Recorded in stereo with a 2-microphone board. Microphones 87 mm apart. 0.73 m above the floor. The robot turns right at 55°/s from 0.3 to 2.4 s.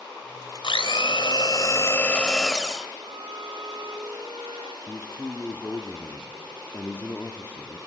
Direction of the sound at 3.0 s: 75° right (ahead or behind).